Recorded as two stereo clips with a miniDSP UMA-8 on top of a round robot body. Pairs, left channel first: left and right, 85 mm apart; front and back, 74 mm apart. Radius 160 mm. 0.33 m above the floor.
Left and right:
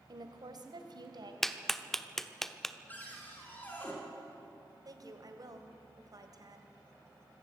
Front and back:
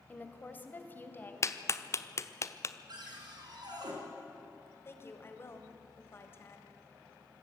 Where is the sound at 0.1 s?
65° right, 2 m; by 1.3 s 60° right, 3 m.